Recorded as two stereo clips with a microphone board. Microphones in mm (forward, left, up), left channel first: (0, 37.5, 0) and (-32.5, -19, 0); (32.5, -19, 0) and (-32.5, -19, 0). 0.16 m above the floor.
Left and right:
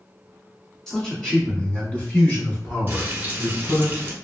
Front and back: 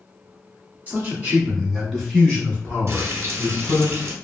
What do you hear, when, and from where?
0.9 s a man speaking: 140° left, 1.5 m; by 3.9 s 20° left, 1.9 m
2.9 s frying: 170° right, 0.9 m